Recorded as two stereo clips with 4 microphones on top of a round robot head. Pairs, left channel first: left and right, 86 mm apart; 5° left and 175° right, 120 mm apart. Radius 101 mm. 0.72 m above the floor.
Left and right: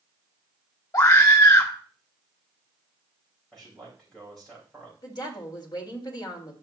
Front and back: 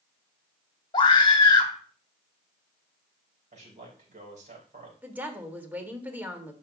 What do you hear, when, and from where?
0.9 s a scream: 50° left, 2 m
3.5 s a man speaking: 175° left, 4 m
5.0 s a woman speaking: 110° left, 1.8 m